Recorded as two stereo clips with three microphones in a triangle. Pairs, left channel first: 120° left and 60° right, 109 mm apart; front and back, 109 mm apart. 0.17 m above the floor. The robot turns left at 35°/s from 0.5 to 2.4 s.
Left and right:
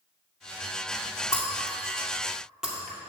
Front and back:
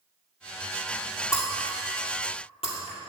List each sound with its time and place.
1.3 s breaking glass: 60° left, 2 m; by 3.0 s 25° left, 2 m